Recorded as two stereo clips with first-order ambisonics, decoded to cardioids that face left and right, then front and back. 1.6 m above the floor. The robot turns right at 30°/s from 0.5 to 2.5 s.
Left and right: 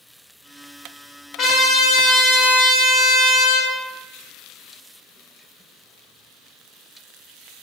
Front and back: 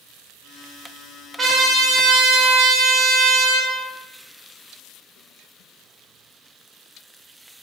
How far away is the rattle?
I don't hear a rattle.